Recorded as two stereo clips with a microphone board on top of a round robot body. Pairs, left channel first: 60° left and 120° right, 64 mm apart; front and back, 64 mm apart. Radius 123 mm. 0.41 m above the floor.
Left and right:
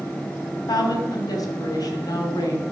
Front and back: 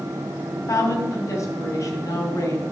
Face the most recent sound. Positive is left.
turn(degrees=40)